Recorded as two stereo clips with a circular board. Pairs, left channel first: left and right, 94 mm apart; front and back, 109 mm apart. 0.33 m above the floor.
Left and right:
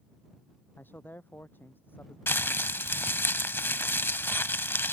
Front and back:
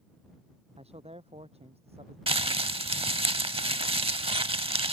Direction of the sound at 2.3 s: 155° left.